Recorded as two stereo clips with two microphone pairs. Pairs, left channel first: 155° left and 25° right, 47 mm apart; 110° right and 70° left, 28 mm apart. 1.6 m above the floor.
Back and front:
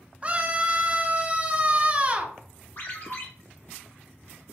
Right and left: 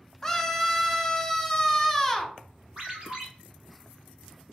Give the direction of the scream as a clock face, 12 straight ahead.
2 o'clock.